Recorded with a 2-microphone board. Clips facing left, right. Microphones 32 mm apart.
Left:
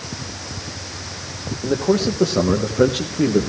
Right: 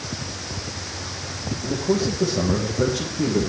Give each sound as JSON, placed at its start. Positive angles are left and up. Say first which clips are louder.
{"t": 1.6, "sound": "a man speaking", "louder": "left 4 dB", "side_deg": 70, "distance_m": 3.5}